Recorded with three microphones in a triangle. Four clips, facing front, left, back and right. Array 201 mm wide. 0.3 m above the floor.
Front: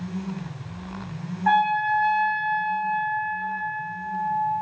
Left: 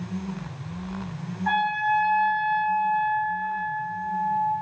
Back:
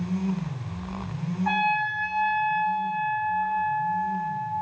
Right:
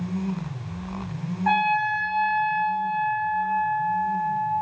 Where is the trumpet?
40° right, 5.5 m.